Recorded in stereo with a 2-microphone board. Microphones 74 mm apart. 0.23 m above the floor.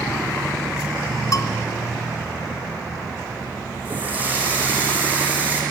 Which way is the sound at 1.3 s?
50° left (ahead or behind).